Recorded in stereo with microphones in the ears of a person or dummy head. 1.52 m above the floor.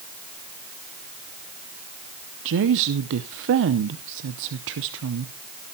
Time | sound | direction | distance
2.5 | a woman speaking | 65° right (ahead or behind) | 0.7 m